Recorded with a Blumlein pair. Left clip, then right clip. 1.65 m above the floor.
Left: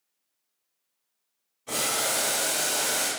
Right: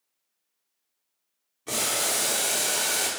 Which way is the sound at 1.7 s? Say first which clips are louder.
Even; 25° right.